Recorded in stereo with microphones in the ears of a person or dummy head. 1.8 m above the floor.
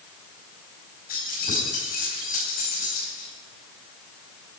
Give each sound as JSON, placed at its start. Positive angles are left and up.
{"t": 1.1, "sound": "keys jangling", "side_deg": 50, "distance_m": 4.5}